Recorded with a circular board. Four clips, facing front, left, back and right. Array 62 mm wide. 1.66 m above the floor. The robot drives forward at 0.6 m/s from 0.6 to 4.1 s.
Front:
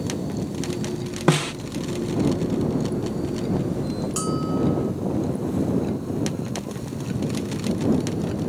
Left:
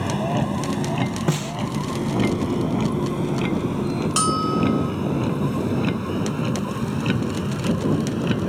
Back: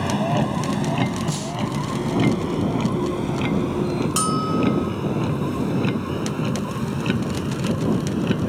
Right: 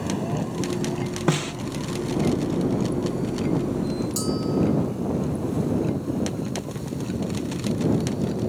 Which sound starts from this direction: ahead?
A snare drum, at 1.3 s.